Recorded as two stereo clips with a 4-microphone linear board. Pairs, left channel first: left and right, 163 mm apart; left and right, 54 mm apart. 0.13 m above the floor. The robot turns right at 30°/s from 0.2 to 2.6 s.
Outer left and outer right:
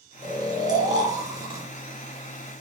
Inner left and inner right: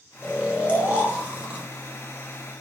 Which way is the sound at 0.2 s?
25° right (ahead or behind).